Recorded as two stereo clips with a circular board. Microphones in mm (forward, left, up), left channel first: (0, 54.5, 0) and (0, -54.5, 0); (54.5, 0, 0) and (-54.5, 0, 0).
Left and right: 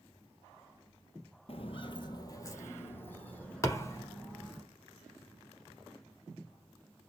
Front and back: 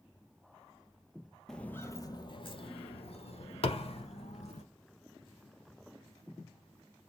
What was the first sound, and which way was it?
Footsteps, 85° left.